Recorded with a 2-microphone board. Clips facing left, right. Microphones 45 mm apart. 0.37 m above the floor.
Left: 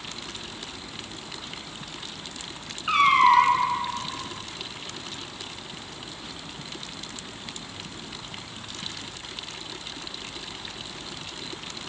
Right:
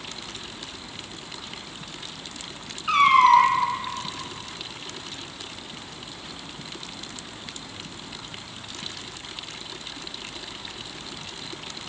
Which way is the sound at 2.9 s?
15° left (ahead or behind).